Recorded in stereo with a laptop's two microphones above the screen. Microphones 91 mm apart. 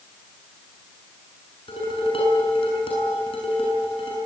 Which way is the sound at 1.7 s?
85° left.